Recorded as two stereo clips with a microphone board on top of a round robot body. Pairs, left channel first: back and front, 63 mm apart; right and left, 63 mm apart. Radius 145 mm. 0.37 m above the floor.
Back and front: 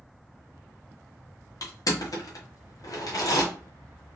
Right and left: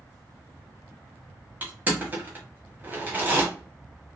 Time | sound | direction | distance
1.6 | crushing | 150° left | 1.3 m